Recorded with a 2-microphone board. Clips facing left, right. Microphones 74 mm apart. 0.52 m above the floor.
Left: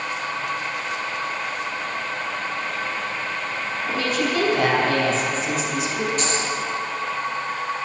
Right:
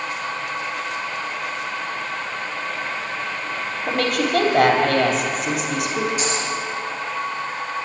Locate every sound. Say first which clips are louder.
3.9 s a woman speaking: right 3 dB; 70° right (ahead or behind), 2.5 m
6.2 s a dropped coin: even; 10° right (ahead or behind), 5 m